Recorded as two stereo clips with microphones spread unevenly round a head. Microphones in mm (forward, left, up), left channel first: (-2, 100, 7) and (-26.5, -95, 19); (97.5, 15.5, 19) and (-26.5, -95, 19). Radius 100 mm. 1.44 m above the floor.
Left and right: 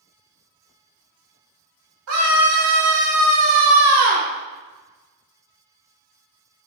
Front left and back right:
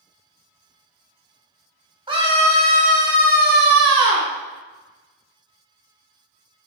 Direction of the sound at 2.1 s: 75° right.